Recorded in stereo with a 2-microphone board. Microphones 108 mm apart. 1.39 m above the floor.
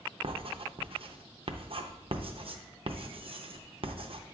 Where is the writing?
60° right (ahead or behind), 0.6 m.